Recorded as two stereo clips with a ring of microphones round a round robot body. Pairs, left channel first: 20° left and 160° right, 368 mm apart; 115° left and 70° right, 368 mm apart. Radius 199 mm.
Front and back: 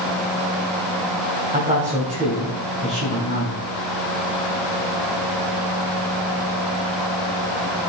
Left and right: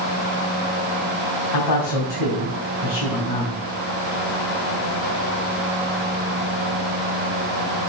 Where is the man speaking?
130° left, 3.5 m.